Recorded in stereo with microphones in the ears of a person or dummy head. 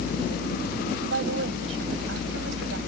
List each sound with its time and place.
1.0 s a woman speaking: 80° right